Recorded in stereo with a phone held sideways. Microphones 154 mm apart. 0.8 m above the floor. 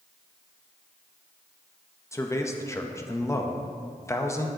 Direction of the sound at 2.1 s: 20° left (ahead or behind).